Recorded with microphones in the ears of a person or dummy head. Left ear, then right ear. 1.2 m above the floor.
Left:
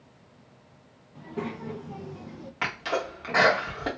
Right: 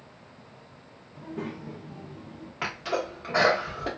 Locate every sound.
1.1 s a child speaking: 15° left (ahead or behind), 0.7 m; by 2.5 s 80° left, 0.5 m
2.6 s a sneeze: 20° left (ahead or behind), 1.3 m